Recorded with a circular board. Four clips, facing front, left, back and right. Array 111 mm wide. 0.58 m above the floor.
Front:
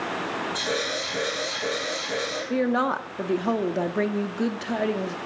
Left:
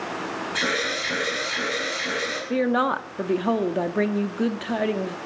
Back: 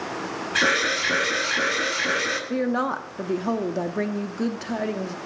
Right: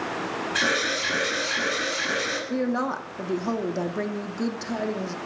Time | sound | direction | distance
0.6 | an alarm | straight behind | 8.5 m
2.5 | a woman speaking | 80° left | 0.7 m